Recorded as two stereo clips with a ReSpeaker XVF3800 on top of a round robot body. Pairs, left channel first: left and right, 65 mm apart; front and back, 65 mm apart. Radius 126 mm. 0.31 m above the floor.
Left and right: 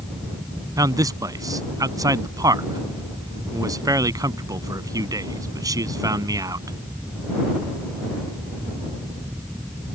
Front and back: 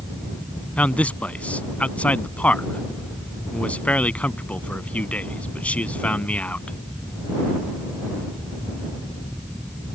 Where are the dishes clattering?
No dishes clattering in this recording.